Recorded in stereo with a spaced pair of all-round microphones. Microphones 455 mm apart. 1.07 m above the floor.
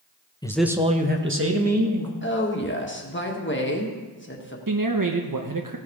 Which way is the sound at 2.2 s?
25° left (ahead or behind).